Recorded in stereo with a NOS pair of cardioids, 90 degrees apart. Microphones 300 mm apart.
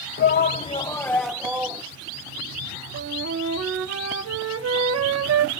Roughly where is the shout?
Ahead left.